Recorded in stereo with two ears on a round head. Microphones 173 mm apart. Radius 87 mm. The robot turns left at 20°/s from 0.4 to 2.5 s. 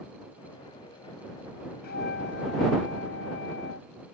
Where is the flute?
55° left (ahead or behind); by 3.9 s 70° left (ahead or behind).